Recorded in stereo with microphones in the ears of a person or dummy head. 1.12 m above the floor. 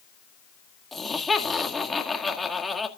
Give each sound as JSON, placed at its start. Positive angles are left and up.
{"t": 0.9, "sound": "laughter", "side_deg": 0, "distance_m": 1.8}